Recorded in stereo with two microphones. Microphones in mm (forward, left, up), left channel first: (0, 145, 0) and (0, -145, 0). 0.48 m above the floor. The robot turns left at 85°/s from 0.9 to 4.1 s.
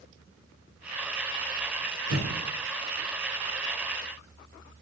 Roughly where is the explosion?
Right.